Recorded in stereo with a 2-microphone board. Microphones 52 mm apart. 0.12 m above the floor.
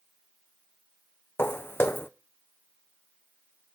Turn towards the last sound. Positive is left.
turn(degrees=50)  # may be behind; listen again after turning